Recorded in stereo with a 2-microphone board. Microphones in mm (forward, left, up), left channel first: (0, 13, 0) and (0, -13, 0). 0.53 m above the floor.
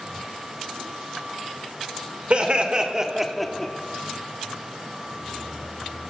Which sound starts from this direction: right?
Laughter, at 2.3 s.